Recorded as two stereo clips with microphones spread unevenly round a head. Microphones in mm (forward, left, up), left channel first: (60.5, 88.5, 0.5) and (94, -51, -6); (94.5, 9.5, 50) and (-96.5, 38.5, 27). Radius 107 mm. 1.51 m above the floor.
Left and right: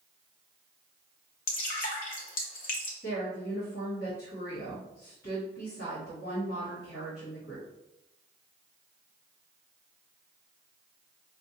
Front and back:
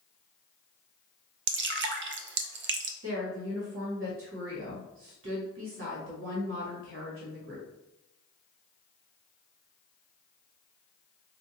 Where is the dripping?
150° left, 0.5 m.